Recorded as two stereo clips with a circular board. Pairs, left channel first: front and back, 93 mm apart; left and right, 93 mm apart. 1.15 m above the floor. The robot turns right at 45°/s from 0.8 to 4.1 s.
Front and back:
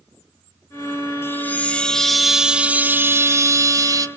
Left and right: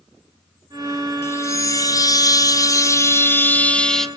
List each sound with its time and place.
1.2 s a chime: 45° left, 0.8 m; by 4.1 s 175° left, 0.8 m